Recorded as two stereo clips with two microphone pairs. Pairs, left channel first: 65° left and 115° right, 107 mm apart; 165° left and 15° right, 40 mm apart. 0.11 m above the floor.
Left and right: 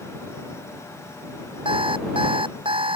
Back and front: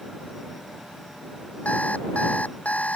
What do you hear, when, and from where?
1.6 s an alarm clock: 145° right